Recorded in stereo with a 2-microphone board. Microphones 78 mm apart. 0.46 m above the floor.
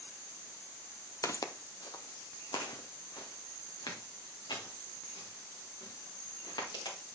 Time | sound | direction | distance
1.2 | footsteps | 45° left (ahead or behind) | 0.6 m